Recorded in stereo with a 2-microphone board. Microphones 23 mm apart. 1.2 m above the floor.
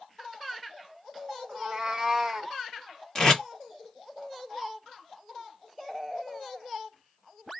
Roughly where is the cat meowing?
Right.